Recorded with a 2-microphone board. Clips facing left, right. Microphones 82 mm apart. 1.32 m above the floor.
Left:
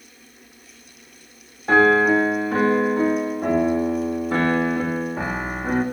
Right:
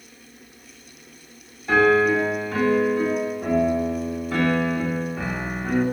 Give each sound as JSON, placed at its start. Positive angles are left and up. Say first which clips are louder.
{"t": 1.7, "sound": "a piano", "louder": "left 2 dB", "side_deg": 40, "distance_m": 1.4}